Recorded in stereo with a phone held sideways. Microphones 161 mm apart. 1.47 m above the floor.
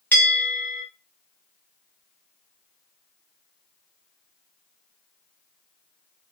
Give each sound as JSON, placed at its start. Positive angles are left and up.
{"t": 0.1, "sound": "a bell", "side_deg": 10, "distance_m": 0.9}